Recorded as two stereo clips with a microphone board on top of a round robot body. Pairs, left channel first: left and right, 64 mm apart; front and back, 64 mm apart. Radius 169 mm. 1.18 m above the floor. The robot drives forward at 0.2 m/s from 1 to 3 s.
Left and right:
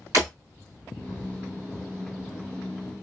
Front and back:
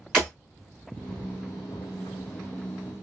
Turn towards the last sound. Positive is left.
turn(degrees=-145)